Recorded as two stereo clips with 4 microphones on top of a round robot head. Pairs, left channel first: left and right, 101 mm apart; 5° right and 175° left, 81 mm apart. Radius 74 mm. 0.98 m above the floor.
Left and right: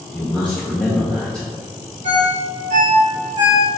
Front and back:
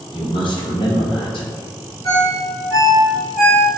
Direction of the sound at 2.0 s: 80° right.